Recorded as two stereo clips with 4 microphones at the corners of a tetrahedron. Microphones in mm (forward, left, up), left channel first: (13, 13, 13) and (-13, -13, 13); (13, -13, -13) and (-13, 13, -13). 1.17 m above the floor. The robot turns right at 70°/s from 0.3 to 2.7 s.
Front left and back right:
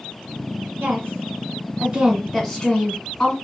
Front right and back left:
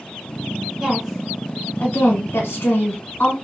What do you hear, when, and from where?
0.8 s a woman speaking: 165° right, 1.0 m; by 3.3 s 30° right, 1.0 m